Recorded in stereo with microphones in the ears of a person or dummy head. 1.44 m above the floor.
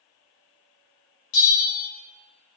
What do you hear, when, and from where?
1.3 s a bell: 65° left (ahead or behind), 2.5 m